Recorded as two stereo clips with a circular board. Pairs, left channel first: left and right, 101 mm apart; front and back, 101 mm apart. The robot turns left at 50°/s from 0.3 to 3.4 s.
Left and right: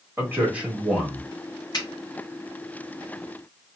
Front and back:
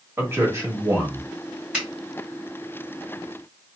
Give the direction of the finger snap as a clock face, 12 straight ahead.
9 o'clock.